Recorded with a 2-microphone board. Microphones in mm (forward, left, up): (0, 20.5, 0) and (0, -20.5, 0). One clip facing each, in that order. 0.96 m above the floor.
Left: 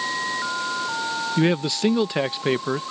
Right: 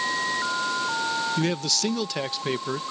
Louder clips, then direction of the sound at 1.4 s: Left 5 dB; 25° left (ahead or behind).